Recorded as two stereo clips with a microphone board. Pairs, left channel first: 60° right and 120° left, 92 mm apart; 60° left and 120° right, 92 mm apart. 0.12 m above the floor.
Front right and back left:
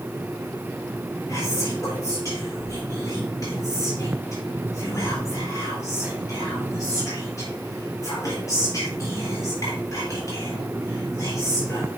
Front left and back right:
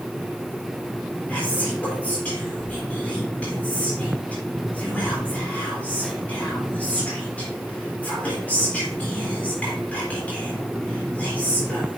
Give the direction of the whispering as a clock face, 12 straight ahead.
12 o'clock.